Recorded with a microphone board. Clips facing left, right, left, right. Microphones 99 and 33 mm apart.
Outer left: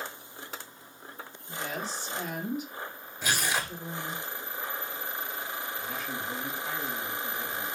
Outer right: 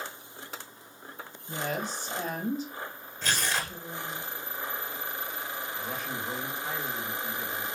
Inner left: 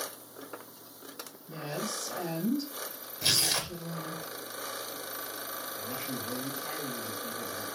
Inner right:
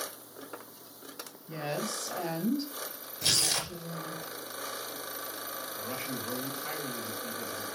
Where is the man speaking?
55° right (ahead or behind), 3.5 m.